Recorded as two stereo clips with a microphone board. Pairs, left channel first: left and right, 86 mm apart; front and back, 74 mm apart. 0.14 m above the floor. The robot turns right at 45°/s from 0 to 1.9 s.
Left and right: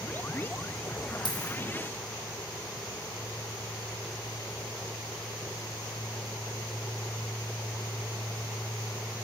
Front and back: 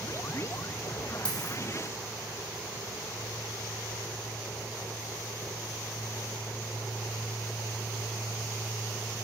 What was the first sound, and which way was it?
A dropped coin, 75° left.